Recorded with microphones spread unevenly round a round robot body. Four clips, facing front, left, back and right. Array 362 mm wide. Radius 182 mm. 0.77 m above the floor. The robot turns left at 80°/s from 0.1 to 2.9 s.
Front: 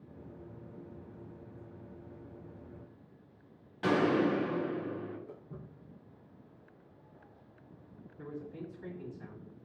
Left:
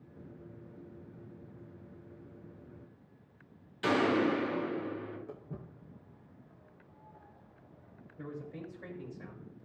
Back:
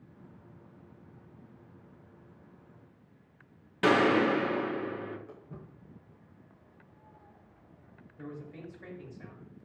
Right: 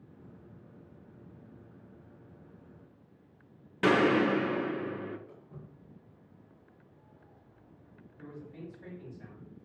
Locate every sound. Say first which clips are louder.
3.8 s a gunshot: right 3 dB, back 4 dB; 120° right, 2.5 m
5.3 s footsteps: left 5 dB, even; 95° left, 4.5 m; by 9.1 s 105° left, 7 m
8.2 s a man speaking: left 3 dB, front 1 dB; 100° left, 5 m